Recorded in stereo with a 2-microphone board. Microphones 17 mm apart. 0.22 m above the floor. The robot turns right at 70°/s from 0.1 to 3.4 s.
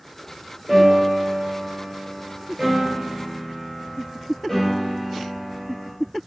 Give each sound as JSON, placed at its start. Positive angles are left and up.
{"t": 0.7, "sound": "a piano", "azimuth_deg": -165, "distance_m": 2.5}